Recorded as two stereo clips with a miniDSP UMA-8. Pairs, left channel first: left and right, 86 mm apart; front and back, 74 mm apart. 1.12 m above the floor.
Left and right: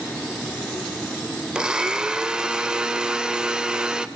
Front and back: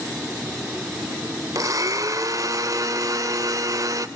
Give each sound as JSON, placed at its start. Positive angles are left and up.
{"t": 1.6, "sound": "a blender", "azimuth_deg": -165, "distance_m": 1.1}